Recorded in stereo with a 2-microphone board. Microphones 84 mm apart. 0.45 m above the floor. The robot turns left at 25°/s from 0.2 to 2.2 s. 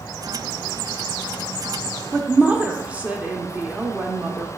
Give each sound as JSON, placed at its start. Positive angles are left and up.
{"t": 2.1, "sound": "a woman speaking", "side_deg": -15, "distance_m": 0.8}